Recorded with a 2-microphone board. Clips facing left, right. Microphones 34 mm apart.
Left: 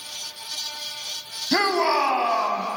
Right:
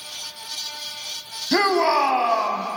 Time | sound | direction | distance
1.5 | a shout | 15° right (ahead or behind) | 1.3 m